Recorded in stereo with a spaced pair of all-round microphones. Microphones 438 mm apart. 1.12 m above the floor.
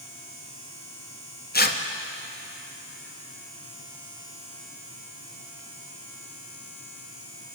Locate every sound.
1.5 s tearing paper: 20° left (ahead or behind), 0.6 m